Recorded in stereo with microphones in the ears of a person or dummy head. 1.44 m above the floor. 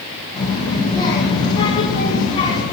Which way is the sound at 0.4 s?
25° left (ahead or behind).